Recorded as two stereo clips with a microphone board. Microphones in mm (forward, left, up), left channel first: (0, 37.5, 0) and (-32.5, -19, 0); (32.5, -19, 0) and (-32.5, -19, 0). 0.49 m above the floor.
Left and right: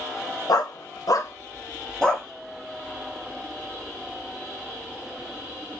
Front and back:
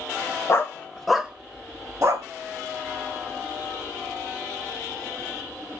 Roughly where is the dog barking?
Ahead left.